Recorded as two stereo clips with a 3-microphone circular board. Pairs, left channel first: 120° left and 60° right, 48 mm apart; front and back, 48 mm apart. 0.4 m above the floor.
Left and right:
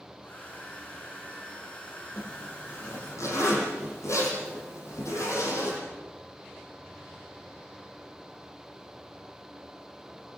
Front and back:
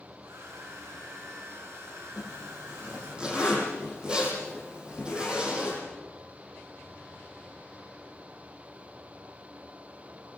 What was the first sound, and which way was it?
A hair dryer, straight behind.